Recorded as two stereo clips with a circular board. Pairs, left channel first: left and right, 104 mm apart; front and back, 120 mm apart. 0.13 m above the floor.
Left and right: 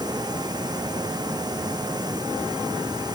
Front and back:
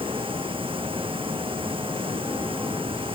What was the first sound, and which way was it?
Running water, 140° right.